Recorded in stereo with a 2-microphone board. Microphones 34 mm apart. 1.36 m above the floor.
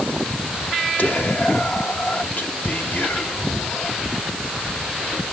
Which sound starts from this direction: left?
Whispering, at 1.0 s.